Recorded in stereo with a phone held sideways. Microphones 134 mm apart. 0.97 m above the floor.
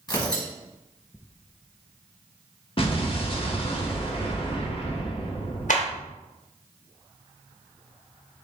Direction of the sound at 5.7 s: 65° left (ahead or behind).